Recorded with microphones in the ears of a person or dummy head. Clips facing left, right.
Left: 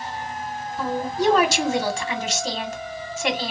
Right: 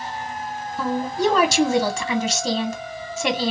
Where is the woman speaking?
70° right (ahead or behind), 0.8 m.